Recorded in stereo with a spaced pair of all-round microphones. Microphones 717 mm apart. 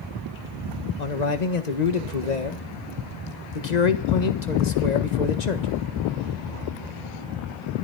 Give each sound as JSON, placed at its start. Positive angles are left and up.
{"t": 1.0, "sound": "a man speaking", "side_deg": 70, "distance_m": 1.7}